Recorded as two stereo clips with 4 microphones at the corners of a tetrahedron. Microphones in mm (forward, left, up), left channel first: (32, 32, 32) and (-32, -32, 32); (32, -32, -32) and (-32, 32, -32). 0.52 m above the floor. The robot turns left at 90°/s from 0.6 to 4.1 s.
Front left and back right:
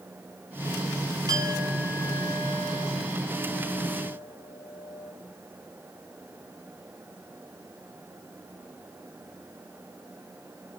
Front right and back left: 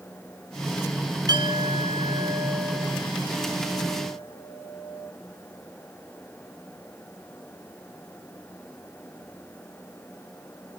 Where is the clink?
Straight behind, 3.5 m; by 5.1 s 75° right, 3.5 m.